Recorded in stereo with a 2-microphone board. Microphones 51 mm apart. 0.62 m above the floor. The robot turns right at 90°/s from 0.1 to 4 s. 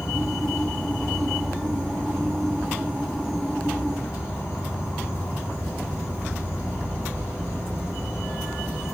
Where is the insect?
85° left, 1.5 m; by 8.9 s 75° left, 1.5 m.